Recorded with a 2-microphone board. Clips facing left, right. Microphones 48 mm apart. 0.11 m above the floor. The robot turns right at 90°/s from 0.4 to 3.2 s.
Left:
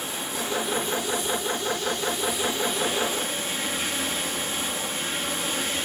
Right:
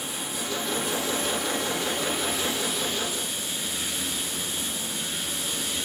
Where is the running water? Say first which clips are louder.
Left 2 dB; 150° left, 1.7 m; by 5.8 s 40° left, 1.7 m.